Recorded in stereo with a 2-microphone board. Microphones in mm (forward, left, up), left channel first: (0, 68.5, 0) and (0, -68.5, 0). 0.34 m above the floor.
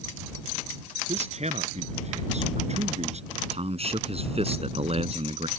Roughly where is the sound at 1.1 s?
Right.